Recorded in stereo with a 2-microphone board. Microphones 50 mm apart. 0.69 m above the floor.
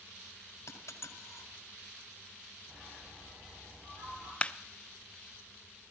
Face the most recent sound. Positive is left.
turn(degrees=25)  # may be behind; listen again after turning